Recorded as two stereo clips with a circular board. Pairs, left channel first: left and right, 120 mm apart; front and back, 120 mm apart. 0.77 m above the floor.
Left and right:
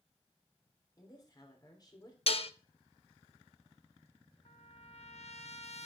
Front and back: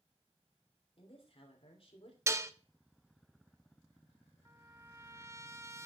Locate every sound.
1.0 s a woman speaking: 35° left, 3 m
2.3 s dishes clattering: 115° left, 0.6 m
4.5 s a trumpet: 115° left, 0.8 m